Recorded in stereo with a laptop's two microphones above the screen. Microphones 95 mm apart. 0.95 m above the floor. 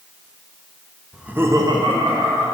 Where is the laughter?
5° right (ahead or behind), 1.1 m; by 2.5 s 70° right (ahead or behind), 1.7 m.